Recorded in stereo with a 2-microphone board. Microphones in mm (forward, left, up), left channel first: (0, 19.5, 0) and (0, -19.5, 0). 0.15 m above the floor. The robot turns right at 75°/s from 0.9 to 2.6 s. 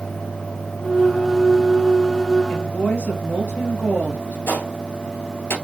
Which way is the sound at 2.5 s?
55° left (ahead or behind).